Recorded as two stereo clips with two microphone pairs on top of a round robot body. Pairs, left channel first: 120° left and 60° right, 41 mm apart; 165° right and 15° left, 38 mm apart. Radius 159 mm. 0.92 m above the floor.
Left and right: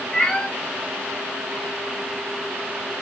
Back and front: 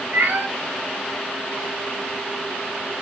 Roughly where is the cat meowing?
Ahead left.